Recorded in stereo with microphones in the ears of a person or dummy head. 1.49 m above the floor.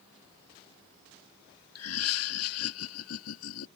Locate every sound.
1.8 s laughter: 85° left; by 3.7 s 80° left